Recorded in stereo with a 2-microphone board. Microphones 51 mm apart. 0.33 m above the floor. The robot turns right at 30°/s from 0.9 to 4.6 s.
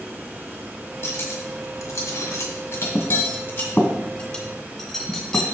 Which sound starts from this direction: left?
Cutlery clinking, at 1.0 s.